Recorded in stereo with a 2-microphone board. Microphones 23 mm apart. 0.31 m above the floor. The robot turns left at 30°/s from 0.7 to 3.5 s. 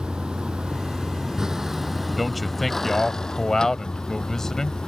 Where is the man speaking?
175° right; by 4.8 s 145° left.